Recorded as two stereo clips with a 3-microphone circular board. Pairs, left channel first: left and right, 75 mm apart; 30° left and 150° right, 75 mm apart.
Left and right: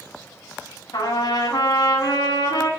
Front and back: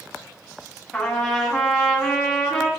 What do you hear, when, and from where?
0.9 s a trumpet: 115° left, 1.9 m